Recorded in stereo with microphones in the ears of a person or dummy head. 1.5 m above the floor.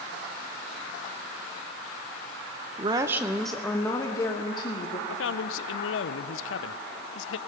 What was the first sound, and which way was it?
A woman speaking, 30° right (ahead or behind).